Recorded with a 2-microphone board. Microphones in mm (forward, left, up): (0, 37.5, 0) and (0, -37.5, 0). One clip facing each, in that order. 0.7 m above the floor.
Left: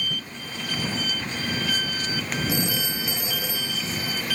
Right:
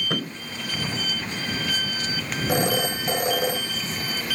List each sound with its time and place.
0.1 s a thud: 80° right
2.5 s a phone ringing: 55° right (ahead or behind)